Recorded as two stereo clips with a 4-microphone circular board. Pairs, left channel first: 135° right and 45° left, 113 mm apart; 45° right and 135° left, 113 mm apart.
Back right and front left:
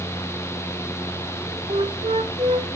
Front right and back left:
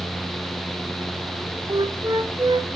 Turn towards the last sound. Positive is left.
turn(degrees=85)